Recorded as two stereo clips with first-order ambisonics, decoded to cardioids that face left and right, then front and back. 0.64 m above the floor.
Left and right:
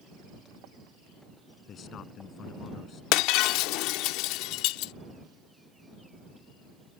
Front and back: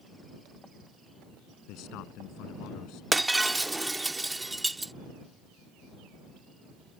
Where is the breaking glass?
100° left.